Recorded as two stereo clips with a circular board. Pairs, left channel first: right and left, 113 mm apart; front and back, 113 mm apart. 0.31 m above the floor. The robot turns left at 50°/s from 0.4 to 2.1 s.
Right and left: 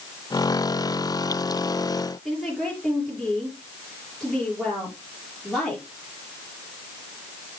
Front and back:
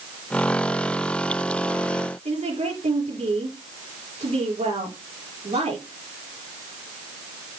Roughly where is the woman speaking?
Behind.